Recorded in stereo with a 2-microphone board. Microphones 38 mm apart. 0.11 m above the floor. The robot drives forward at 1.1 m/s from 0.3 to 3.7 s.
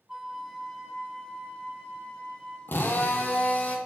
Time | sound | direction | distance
0.1 | a flute | 10° right (ahead or behind) | 0.7 m
2.7 | a drill | 65° left (ahead or behind) | 1.4 m